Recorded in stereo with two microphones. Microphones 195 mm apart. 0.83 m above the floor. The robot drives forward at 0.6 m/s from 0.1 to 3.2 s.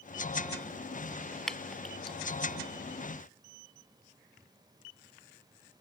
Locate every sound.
1.5 s dripping: centre (ahead or behind); by 2.2 s 5° left (ahead or behind)